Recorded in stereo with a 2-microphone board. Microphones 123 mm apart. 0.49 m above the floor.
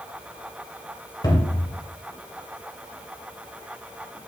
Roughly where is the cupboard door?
Left.